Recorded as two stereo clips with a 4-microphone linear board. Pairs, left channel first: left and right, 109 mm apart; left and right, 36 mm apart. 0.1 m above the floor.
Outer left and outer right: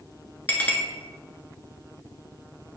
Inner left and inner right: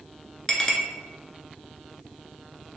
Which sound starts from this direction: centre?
A clink, at 0.5 s.